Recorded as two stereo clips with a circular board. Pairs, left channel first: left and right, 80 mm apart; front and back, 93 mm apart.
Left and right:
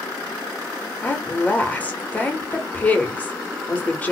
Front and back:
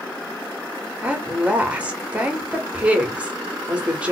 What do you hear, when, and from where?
1.0 s a woman speaking: 125° left, 0.9 m